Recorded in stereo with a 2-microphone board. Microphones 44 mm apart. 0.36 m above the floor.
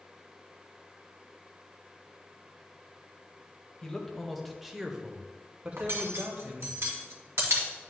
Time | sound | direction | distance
3.8 | a man speaking | 15° left (ahead or behind) | 1.2 m
5.8 | cutlery clinking | 75° right (ahead or behind) | 1.4 m